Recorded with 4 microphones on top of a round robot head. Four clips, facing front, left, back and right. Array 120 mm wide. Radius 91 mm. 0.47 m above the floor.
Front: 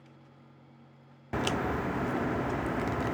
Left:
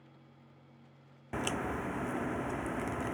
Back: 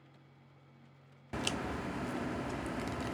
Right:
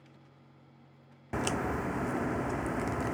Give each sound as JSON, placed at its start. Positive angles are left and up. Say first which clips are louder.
{"t": 1.3, "sound": "a crack", "louder": "right 3 dB, front 7 dB", "azimuth_deg": -20}